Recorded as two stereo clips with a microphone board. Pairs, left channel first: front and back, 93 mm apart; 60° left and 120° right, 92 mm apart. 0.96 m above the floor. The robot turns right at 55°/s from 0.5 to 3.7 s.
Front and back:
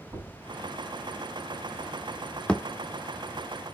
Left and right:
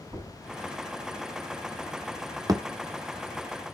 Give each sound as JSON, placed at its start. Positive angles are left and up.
{"t": 0.1, "sound": "knocking", "azimuth_deg": -140, "distance_m": 6.5}
{"t": 2.5, "sound": "a thud", "azimuth_deg": -75, "distance_m": 0.6}